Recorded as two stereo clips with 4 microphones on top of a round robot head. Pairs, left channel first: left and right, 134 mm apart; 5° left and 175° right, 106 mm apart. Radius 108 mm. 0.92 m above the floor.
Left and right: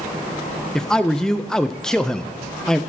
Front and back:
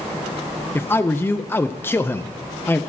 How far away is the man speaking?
About 0.7 m.